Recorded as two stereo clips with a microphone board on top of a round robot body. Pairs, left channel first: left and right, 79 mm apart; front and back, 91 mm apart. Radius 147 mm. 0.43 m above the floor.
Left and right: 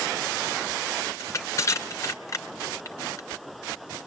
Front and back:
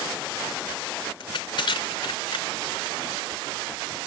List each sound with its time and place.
1.2 s crushing: 35° left, 1.8 m